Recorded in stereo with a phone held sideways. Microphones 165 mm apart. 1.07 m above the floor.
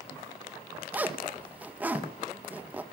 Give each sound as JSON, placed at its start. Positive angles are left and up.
{"t": 0.9, "sound": "a zipper", "side_deg": -10, "distance_m": 1.5}